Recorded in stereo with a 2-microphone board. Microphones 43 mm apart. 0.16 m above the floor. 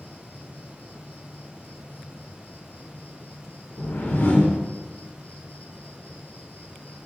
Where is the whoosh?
55° left (ahead or behind), 2 m.